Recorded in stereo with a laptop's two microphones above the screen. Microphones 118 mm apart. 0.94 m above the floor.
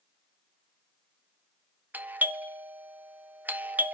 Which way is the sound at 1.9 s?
15° right (ahead or behind).